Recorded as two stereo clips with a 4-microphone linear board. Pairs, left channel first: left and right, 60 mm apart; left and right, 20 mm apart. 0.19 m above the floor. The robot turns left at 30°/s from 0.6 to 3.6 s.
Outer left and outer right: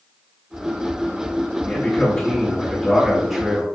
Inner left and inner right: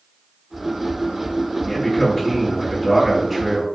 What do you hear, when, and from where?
1.6 s a man speaking: 25° left (ahead or behind), 1.3 m; by 3.6 s centre (ahead or behind), 1.3 m